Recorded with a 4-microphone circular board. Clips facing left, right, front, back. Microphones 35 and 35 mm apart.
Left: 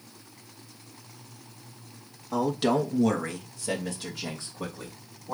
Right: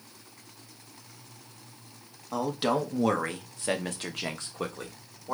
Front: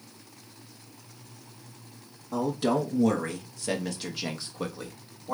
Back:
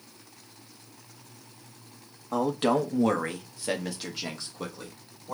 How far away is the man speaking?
About 1.1 m.